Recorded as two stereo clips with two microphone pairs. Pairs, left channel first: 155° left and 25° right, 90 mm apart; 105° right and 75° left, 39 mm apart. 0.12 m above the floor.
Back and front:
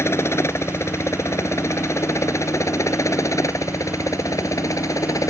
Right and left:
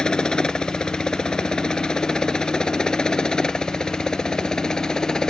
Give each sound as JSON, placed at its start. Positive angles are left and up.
{"t": 0.0, "sound": "a helicopter", "azimuth_deg": -160}